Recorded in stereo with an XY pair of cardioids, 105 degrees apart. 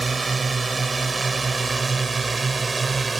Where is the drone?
20° right.